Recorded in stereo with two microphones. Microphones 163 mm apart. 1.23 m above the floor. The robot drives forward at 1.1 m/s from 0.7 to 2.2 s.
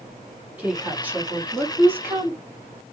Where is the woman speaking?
10° right (ahead or behind), 4.5 m; by 2.4 s 15° right (ahead or behind), 3 m.